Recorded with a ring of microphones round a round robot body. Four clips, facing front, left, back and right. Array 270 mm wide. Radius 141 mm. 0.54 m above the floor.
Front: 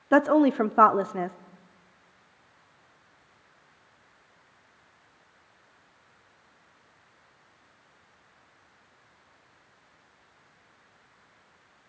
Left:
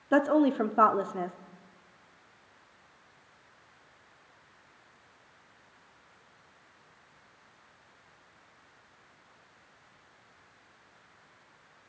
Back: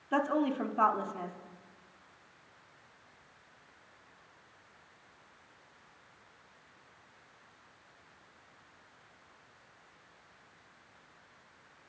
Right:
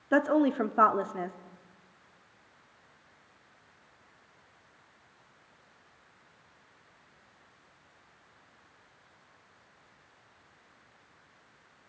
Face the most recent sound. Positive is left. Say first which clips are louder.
# left 1 dB, front 10 dB
turn(degrees=0)